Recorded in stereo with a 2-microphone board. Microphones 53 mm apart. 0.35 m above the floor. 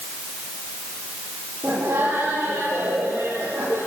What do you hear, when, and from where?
1.6 s laughter: 75° right (ahead or behind), 10 m; by 3.8 s 85° right, 11 m